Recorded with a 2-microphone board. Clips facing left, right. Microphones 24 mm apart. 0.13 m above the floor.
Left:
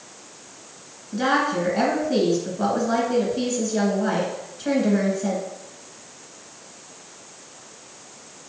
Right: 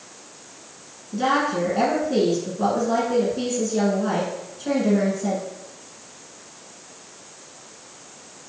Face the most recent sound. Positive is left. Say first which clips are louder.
# even
turn(degrees=25)  # may be behind; listen again after turning